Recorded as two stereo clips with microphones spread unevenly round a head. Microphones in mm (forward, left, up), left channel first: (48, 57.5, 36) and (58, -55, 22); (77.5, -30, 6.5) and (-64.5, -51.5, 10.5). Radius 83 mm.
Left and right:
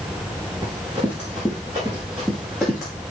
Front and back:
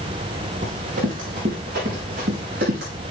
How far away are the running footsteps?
About 6.5 m.